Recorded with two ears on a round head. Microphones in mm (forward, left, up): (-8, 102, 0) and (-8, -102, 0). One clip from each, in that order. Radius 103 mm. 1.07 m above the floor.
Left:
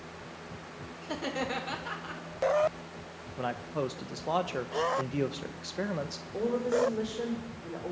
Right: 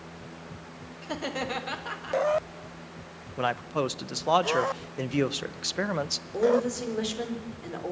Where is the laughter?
10° right (ahead or behind), 1.8 m.